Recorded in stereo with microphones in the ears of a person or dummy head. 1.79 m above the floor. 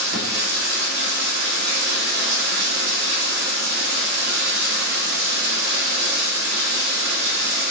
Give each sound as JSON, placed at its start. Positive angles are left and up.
{"t": 0.0, "sound": "running water", "side_deg": -60, "distance_m": 2.5}